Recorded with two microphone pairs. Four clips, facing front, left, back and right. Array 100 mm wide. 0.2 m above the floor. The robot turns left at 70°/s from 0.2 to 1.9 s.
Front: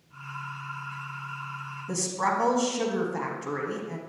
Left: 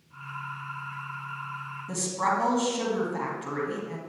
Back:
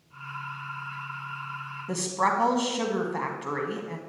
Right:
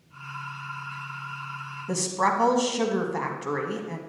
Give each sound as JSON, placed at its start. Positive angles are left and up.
{"t": 1.9, "sound": "a woman speaking", "azimuth_deg": -140, "distance_m": 1.2}